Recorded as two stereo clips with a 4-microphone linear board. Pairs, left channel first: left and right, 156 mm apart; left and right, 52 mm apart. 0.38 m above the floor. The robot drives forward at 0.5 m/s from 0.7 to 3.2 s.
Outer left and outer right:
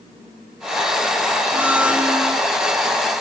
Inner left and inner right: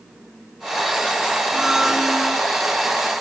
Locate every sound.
1.5 s a blender: 10° right (ahead or behind), 0.6 m; by 2.4 s 5° right (ahead or behind), 1.0 m